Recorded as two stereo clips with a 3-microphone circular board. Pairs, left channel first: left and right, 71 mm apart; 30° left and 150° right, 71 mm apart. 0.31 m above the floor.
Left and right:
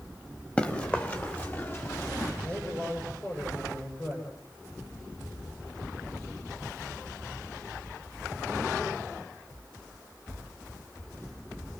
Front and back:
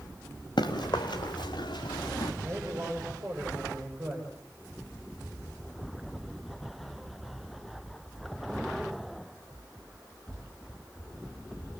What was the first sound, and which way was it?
Running footsteps, 20° left.